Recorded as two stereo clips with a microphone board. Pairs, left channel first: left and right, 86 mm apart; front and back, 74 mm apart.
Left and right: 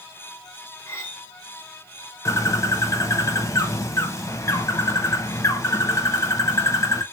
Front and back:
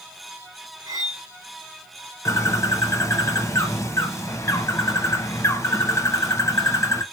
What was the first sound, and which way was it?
Cutlery clinking, 145° left.